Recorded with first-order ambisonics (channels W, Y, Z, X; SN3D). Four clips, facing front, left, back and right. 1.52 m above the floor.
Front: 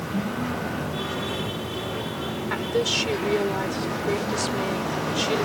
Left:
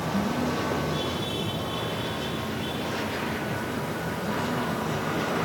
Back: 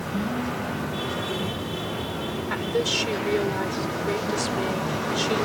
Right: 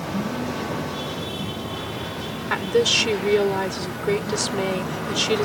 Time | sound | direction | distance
2.5 | a woman speaking | 85° right | ?